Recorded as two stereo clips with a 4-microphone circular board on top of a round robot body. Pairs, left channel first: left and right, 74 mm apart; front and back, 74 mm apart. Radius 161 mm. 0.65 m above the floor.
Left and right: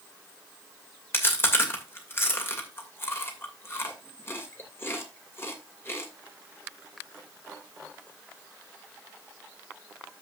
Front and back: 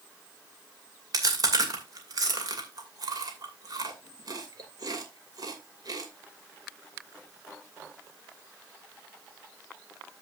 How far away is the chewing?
About 2.5 m.